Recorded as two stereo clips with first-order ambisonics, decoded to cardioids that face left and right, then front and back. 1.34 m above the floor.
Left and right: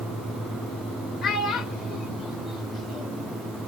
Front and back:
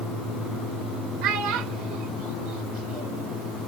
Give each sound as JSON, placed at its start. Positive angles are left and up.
{"t": 1.2, "sound": "a child speaking", "azimuth_deg": 165, "distance_m": 1.8}